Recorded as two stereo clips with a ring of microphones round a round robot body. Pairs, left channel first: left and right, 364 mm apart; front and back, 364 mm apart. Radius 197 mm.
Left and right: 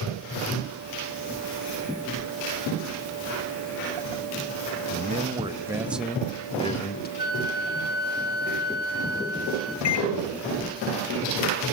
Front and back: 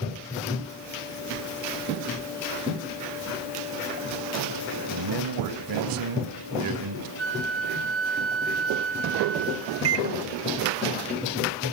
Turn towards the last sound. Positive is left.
turn(degrees=135)